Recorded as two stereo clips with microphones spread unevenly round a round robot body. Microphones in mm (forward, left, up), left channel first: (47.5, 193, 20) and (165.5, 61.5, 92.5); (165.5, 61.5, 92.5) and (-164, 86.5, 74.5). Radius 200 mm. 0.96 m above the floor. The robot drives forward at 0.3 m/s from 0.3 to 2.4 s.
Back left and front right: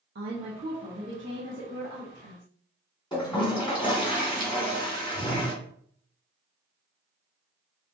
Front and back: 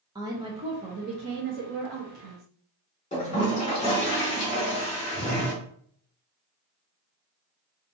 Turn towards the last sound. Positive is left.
turn(degrees=65)